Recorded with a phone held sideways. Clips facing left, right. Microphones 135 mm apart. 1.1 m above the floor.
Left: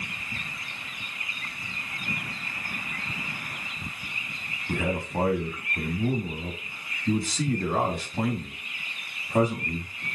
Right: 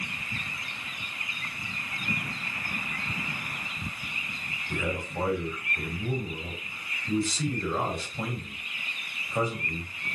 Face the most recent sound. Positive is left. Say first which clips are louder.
# left 4 dB
turn(degrees=75)  # may be behind; listen again after turning